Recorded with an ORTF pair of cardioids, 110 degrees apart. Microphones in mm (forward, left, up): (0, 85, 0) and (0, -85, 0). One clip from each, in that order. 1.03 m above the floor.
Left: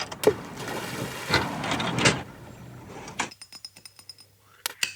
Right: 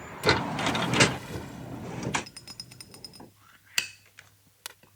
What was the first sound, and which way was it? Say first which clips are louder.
A splash: even; 55° left.